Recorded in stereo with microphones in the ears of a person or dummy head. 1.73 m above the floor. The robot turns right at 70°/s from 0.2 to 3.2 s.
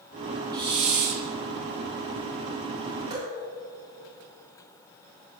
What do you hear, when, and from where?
0.5 s a hiss: 160° right, 1.2 m; by 1.2 s 110° right, 1.2 m
3.1 s dripping: 25° right (ahead or behind), 4 m; by 3.4 s 15° right (ahead or behind), 4 m